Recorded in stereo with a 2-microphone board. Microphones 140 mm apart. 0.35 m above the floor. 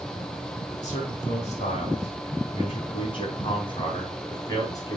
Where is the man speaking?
55° left (ahead or behind), 4 m; by 5.0 s 25° left (ahead or behind), 3.5 m.